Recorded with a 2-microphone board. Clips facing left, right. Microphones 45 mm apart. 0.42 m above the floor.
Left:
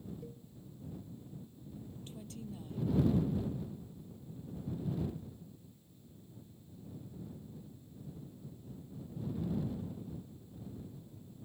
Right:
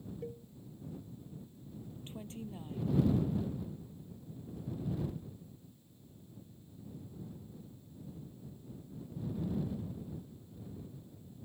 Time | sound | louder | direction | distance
0.2 | a cowbell | right 6 dB | 45° right (ahead or behind) | ?
2.1 | a woman speaking | right 3 dB | 30° right (ahead or behind) | ?